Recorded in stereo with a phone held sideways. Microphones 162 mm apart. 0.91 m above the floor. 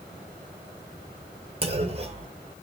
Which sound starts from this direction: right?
A clunk, at 1.6 s.